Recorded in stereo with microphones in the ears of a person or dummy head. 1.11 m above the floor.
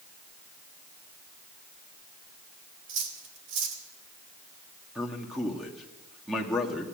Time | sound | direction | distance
2.9 | cutlery clinking | 70° right (ahead or behind) | 1.9 m
5.0 | a man speaking | centre (ahead or behind) | 1.8 m